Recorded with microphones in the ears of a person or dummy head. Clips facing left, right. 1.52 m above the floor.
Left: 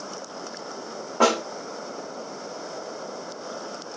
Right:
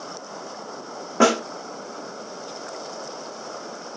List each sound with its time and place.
1.2 s a snare drum: 25° right (ahead or behind), 0.9 m